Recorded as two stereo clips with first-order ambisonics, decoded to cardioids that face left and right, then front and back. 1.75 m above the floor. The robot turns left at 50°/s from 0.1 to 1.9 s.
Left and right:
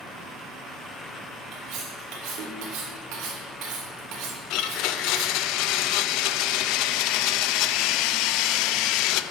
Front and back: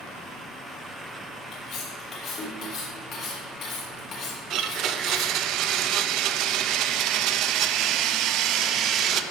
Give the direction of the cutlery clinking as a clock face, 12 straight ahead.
1 o'clock.